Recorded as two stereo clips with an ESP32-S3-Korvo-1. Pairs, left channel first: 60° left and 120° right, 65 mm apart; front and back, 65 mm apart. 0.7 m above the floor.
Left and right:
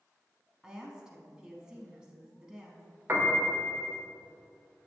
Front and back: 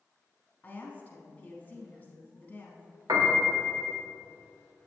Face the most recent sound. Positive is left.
turn(degrees=180)